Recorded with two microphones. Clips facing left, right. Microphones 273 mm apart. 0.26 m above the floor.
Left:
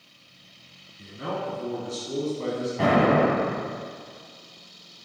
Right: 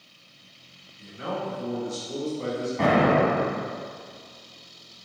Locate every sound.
1.0 s a man speaking: 45° left (ahead or behind), 1.7 m
2.8 s an explosion: 5° left (ahead or behind), 1.5 m